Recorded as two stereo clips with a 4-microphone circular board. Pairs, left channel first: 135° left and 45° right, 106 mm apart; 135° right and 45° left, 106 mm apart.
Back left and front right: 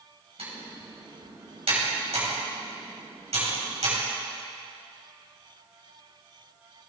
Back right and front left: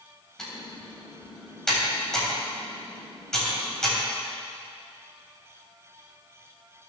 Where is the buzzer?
I don't hear a buzzer.